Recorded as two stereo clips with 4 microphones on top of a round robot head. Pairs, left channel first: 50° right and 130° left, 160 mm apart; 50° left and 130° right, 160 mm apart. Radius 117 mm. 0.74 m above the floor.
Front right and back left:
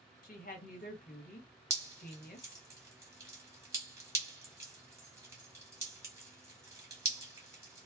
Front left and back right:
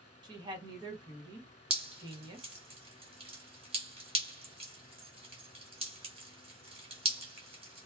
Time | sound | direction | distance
0.2 | a woman speaking | 70° right | 1.4 m
1.7 | dripping | 165° right | 1.4 m